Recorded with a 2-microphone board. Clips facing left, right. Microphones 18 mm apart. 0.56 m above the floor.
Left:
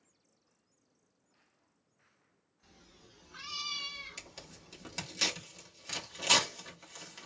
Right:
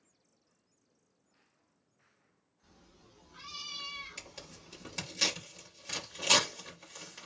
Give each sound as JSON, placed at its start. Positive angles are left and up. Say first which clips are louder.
{"t": 2.6, "sound": "a cat meowing", "louder": "left 2 dB", "side_deg": 60, "distance_m": 1.2}
{"t": 4.2, "sound": "tearing paper", "louder": "right 1 dB", "side_deg": 5, "distance_m": 1.0}